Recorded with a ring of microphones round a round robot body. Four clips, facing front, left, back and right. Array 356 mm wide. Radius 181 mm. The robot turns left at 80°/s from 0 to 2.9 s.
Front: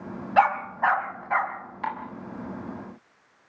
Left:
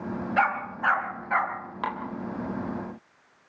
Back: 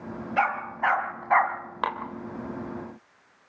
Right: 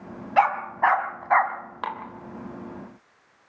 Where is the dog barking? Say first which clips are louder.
Right 6 dB, front 5 dB; 40° right, 3 m; by 1.6 s 135° right, 3 m.